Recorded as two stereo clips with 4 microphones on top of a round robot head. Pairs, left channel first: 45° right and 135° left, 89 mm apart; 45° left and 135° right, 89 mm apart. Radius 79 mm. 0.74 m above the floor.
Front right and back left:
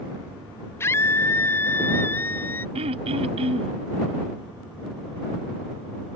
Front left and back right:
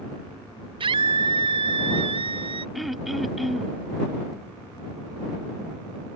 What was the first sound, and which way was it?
A scream, 110° right.